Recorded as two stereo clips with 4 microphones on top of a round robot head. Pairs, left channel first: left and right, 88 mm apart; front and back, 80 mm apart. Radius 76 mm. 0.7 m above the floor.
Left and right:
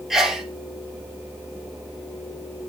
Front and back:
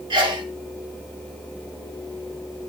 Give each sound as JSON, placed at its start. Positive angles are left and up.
{"t": 0.1, "sound": "a sneeze", "azimuth_deg": -175, "distance_m": 1.5}